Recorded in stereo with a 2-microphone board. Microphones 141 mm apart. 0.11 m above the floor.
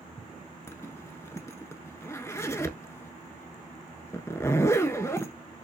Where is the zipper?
20° left (ahead or behind), 0.6 m.